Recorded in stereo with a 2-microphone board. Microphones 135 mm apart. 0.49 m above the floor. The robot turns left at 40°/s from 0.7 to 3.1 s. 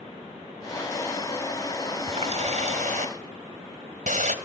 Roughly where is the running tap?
Ahead right.